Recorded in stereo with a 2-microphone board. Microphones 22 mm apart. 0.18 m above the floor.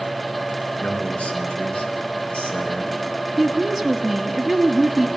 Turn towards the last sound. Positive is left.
turn(degrees=0)  # may be behind; listen again after turning